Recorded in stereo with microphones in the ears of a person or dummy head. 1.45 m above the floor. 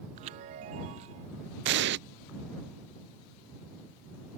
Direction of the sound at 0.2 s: 30° right (ahead or behind).